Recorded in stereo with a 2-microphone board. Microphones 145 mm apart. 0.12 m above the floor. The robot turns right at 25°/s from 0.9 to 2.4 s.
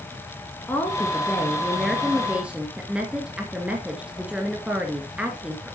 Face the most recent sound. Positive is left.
turn(degrees=-170)